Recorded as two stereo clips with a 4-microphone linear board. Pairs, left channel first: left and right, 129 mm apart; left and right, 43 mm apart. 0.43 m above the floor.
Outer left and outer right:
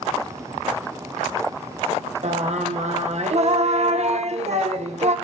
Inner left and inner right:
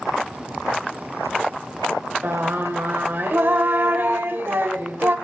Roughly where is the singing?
Right.